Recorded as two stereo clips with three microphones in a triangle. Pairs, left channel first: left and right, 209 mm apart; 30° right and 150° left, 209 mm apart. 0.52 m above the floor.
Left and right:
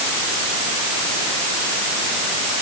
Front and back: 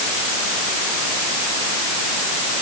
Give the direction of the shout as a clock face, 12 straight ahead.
No shout in this recording.